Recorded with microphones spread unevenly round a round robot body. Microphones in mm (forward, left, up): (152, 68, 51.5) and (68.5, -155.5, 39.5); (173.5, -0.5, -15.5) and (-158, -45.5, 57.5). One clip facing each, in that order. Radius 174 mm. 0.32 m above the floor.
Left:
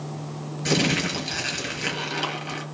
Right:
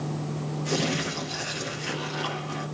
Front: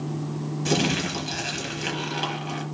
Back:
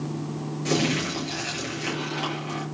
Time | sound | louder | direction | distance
0.7 | crumpling | left 5 dB, even | 85° left | 7 m